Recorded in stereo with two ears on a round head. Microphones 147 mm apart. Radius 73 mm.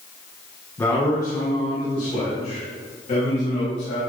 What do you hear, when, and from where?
0.8 s a man speaking: 15° left (ahead or behind), 1.8 m; by 4.0 s 40° left (ahead or behind), 4 m